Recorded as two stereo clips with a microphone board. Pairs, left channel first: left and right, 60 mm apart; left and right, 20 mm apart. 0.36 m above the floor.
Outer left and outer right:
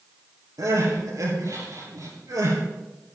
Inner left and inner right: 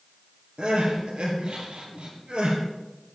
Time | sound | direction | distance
0.6 | crying | 80° right | 4 m